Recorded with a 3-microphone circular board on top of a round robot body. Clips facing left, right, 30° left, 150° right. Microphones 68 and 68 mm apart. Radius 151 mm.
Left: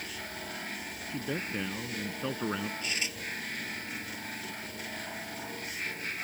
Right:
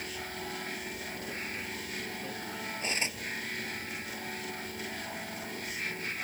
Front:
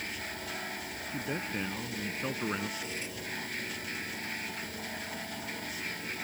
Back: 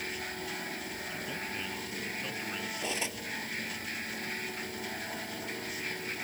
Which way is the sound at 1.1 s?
85° left.